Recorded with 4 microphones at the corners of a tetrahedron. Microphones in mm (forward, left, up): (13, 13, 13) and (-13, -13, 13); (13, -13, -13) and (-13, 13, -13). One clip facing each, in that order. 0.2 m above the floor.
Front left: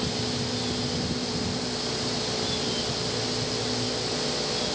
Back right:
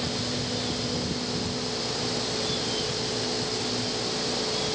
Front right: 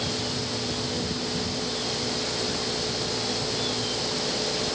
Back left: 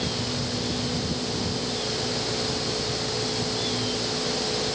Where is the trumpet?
I don't hear a trumpet.